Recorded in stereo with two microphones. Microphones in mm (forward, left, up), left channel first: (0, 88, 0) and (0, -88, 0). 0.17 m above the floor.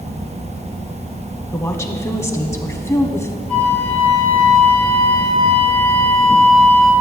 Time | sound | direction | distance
1.5 | a woman speaking | 15° left (ahead or behind) | 1.1 m
3.5 | a flute | 45° right (ahead or behind) | 4 m